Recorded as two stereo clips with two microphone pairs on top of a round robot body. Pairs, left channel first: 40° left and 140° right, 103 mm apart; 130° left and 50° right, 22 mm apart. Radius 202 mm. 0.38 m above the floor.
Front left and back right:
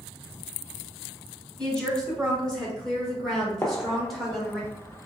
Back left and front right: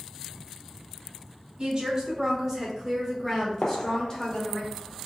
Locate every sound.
1.6 s a woman speaking: 55° right, 1.4 m; by 4.6 s 140° left, 1.7 m
3.6 s a gunshot: 115° left, 0.6 m